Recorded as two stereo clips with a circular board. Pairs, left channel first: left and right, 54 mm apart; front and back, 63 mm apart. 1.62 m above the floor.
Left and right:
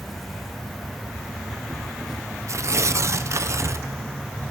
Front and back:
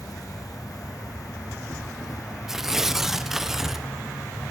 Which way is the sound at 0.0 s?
Straight ahead.